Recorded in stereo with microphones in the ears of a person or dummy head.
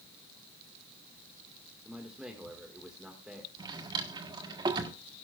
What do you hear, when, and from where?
1.9 s a man speaking: centre (ahead or behind), 1.8 m
3.6 s a drawer: 20° right (ahead or behind), 1.4 m